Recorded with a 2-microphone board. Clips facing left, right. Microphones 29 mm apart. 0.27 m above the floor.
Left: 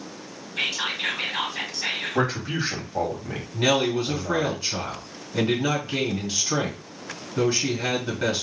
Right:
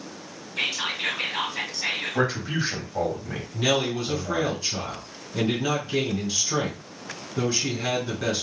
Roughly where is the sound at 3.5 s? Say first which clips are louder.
Left 2 dB; left.